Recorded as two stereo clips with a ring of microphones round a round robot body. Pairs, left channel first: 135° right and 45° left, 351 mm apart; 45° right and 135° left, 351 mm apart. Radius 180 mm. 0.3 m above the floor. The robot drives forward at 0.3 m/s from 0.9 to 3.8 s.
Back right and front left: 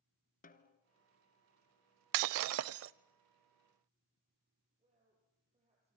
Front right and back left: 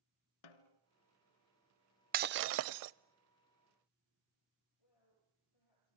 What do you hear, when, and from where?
0.4 s a snare drum: 65° right, 1.3 m
2.1 s breaking glass: 70° left, 0.5 m; by 2.9 s 100° left, 0.5 m
4.8 s a woman speaking: 30° right, 9.5 m